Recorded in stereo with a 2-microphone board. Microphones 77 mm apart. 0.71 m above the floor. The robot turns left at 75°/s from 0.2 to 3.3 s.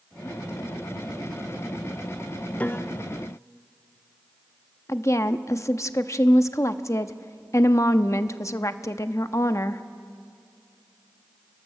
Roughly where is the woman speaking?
Left.